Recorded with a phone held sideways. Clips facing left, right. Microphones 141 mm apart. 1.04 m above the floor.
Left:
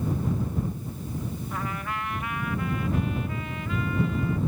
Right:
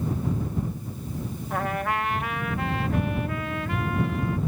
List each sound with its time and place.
1.5 s a trumpet: 70° right (ahead or behind)